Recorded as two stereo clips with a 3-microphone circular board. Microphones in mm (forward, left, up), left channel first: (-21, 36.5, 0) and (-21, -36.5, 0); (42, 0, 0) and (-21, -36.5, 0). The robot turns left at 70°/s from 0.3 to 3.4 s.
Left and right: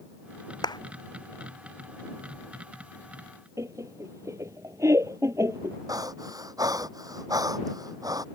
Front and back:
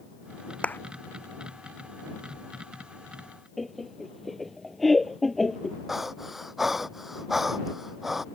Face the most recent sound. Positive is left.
turn(degrees=-65)